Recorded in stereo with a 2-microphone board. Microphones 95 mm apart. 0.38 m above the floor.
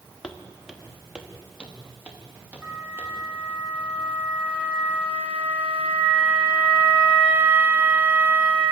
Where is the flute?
15° right (ahead or behind), 4.5 m.